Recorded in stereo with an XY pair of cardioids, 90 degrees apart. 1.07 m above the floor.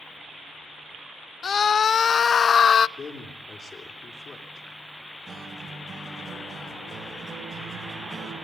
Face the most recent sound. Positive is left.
turn(degrees=-55)